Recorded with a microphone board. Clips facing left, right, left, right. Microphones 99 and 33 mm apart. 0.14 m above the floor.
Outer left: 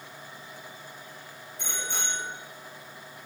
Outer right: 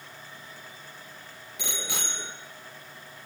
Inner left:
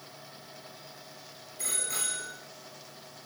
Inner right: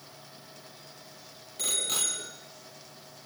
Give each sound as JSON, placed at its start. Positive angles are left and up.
{"t": 1.6, "sound": "a bicycle bell", "side_deg": -75, "distance_m": 3.5}